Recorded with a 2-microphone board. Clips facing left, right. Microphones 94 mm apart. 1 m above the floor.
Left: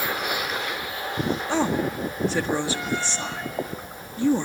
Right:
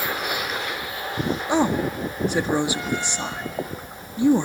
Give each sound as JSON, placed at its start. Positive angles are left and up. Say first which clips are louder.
{"t": 1.5, "sound": "a woman speaking", "louder": "right 4 dB", "side_deg": -15, "distance_m": 1.6}